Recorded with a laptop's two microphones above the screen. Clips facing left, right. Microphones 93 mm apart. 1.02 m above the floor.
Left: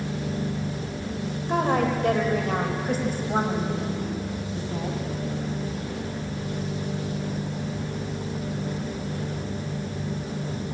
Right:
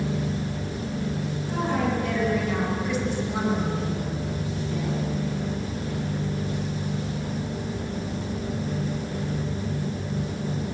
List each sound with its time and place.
1.5 s a woman speaking: 60° left (ahead or behind), 4.5 m; by 5.0 s 30° left (ahead or behind), 7.5 m